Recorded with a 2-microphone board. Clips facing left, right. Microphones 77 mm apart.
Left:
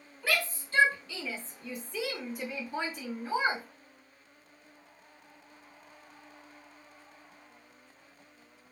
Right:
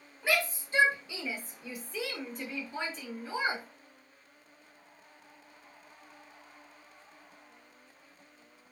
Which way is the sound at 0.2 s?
20° right (ahead or behind).